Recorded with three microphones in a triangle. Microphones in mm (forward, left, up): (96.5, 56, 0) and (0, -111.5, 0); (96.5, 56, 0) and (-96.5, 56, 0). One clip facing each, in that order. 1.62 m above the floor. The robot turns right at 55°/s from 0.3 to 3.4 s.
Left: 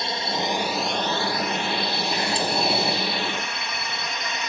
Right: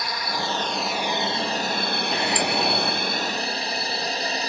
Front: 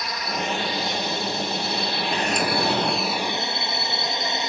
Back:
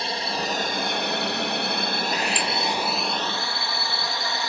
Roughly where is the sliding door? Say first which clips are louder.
Right 1 dB, front 3 dB; ahead right.